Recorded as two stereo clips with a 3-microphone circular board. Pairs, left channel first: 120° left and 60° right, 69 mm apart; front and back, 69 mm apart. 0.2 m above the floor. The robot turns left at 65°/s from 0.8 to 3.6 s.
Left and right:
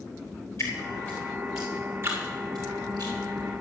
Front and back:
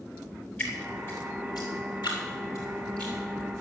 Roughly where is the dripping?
Left.